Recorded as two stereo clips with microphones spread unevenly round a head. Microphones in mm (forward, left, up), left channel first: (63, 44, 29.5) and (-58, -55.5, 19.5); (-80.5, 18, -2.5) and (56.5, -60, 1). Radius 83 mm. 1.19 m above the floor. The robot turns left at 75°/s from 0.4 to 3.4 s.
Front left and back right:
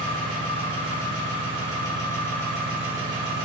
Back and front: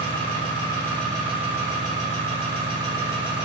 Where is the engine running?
115° left, 1.1 m; by 3.5 s 110° right, 1.1 m.